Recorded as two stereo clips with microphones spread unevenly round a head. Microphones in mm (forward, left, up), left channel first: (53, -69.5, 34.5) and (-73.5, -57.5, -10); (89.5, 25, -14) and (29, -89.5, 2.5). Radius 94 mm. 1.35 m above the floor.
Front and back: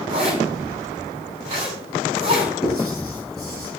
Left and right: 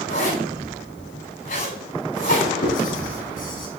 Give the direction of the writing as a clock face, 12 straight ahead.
10 o'clock.